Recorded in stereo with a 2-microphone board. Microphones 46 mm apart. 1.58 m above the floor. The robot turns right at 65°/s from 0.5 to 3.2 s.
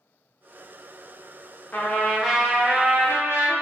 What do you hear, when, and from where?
1.7 s a trumpet: 140° left, 0.6 m; by 3.5 s 125° right, 0.6 m